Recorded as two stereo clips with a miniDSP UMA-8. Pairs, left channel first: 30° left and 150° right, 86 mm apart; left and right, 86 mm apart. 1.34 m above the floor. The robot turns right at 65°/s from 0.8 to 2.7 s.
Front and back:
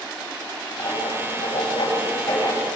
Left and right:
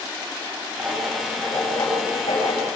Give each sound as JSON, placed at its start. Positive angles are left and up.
{"t": 0.8, "sound": "writing", "azimuth_deg": -20, "distance_m": 8.5}